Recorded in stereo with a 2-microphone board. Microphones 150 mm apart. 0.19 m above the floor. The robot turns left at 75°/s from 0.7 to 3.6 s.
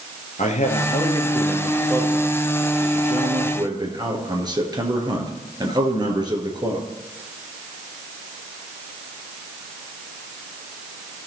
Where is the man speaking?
70° left, 2.5 m; by 6.9 s 145° right, 2.5 m.